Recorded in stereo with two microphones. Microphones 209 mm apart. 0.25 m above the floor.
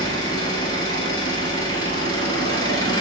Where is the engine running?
20° left (ahead or behind), 1.0 m.